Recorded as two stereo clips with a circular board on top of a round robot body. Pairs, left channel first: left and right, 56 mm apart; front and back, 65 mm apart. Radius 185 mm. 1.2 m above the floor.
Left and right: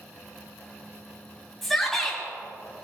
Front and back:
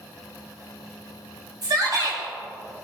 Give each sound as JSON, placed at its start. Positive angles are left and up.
{"t": 1.6, "sound": "a shout", "azimuth_deg": 175, "distance_m": 4.5}